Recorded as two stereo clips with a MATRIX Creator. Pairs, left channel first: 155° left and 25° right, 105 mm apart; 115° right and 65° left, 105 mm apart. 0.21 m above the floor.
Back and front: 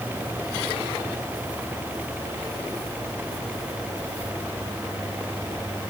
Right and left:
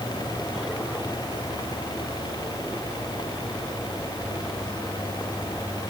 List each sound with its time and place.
Only background noise.